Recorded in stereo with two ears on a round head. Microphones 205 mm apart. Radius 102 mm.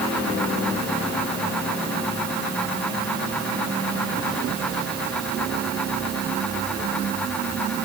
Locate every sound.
Only background noise.